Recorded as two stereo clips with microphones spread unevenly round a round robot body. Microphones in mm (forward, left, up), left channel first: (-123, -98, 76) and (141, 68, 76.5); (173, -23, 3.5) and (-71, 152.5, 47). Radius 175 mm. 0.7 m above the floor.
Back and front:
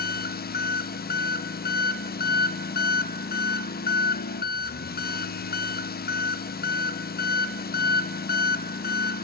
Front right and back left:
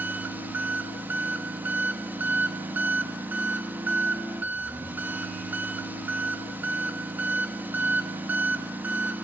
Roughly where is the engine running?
Behind right.